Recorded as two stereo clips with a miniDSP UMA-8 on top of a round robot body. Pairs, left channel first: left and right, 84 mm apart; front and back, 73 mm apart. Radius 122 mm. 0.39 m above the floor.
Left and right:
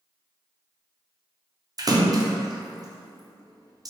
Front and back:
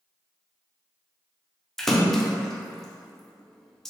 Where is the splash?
85° right, 0.6 m.